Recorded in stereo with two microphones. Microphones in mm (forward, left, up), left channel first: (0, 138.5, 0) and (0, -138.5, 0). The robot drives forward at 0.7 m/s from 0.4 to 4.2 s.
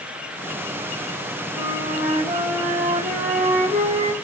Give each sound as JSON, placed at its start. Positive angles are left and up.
{"t": 1.5, "sound": "a flute", "side_deg": -10, "distance_m": 5.5}